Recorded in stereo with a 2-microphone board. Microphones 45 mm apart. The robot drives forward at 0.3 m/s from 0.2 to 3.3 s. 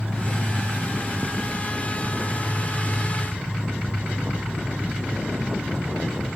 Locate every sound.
0.0 s an insect: 30° right (ahead or behind), 2 m; by 6.4 s 20° right (ahead or behind), 2.5 m